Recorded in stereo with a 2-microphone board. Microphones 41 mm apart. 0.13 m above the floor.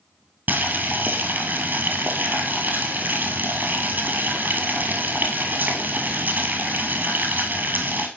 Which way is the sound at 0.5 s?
50° right (ahead or behind).